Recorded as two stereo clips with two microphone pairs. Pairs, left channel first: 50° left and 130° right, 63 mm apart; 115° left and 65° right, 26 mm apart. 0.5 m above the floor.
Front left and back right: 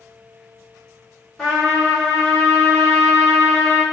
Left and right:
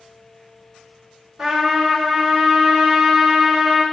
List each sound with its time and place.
1.4 s a trumpet: 25° right, 1.5 m